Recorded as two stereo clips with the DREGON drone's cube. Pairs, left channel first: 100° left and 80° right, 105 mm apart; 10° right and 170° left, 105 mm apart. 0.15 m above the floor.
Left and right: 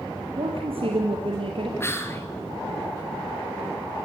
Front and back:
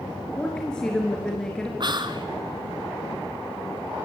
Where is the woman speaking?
95° right, 3.5 m.